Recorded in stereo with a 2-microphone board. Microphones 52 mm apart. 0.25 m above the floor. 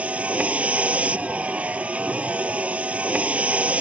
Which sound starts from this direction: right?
A vehicle, at 0.0 s.